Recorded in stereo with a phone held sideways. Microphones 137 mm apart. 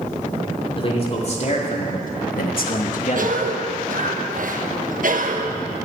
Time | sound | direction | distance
0.8 | a man speaking | 40° left (ahead or behind) | 3 m
3.1 | a cough | 65° right (ahead or behind) | 1.2 m